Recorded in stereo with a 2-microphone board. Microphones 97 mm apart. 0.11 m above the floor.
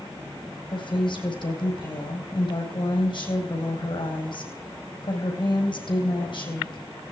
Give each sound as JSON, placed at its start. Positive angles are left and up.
{"t": 0.7, "sound": "a woman speaking", "side_deg": 55, "distance_m": 4.0}